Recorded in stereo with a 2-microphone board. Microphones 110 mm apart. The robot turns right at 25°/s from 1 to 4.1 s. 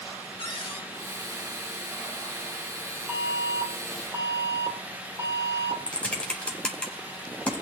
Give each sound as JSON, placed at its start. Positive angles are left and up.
{"t": 0.4, "sound": "a cupboard door", "side_deg": 55, "distance_m": 3.0}
{"t": 3.1, "sound": "an alarm", "side_deg": -10, "distance_m": 2.5}
{"t": 5.9, "sound": "typing on a keyboard", "side_deg": 10, "distance_m": 2.5}